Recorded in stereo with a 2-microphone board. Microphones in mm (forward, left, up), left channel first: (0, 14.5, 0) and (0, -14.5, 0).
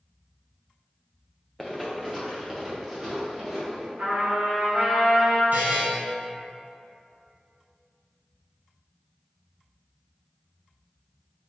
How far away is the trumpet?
About 1.4 m.